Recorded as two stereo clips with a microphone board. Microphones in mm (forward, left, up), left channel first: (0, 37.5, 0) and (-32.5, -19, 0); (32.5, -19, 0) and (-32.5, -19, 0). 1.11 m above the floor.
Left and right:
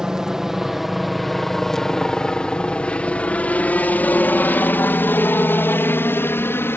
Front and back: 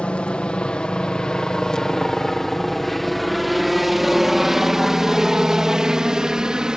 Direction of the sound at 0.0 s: 50° right.